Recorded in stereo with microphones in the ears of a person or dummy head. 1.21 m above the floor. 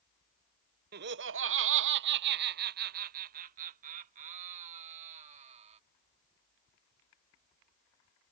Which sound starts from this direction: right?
Laughter, at 0.9 s.